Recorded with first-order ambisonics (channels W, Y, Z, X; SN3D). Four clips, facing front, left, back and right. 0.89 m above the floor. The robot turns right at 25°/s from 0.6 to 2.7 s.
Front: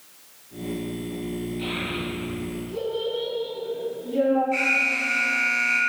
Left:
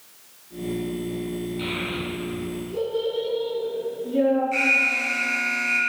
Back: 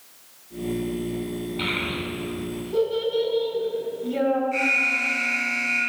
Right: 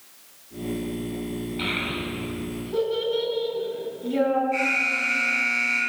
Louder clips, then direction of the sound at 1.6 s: Right 4 dB, back 4 dB; 160° right.